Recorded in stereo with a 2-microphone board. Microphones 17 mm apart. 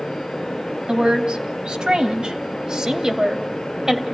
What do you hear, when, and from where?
0.9 s a woman speaking: 55° right (ahead or behind), 2.5 m; by 4.0 s 35° right (ahead or behind), 1.8 m